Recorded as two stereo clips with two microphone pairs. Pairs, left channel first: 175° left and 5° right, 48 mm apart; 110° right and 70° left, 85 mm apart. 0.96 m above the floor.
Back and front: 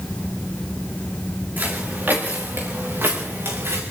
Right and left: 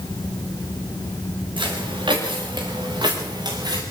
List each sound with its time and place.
1.6 s footsteps: 50° left, 7.5 m; by 3.8 s 35° left, 6.5 m